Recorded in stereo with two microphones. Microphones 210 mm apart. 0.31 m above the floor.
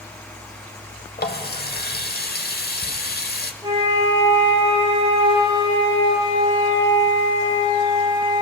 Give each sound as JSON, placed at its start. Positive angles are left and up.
{"t": 1.2, "sound": "a running tap", "side_deg": 50, "distance_m": 0.8}
{"t": 3.6, "sound": "a flute", "side_deg": -25, "distance_m": 5.0}